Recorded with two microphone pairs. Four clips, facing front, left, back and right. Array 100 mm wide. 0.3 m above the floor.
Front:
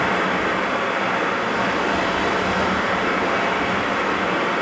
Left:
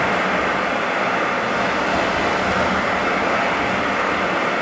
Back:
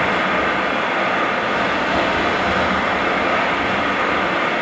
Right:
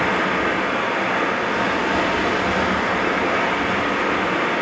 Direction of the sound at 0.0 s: 155° left.